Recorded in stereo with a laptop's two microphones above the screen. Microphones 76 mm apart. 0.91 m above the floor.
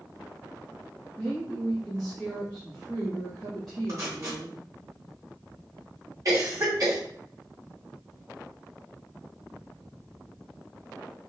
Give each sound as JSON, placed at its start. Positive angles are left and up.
{"t": 1.2, "sound": "a woman speaking", "side_deg": 5, "distance_m": 2.5}
{"t": 3.9, "sound": "tape being pulled", "side_deg": -45, "distance_m": 2.5}
{"t": 6.2, "sound": "a cough", "side_deg": -45, "distance_m": 2.5}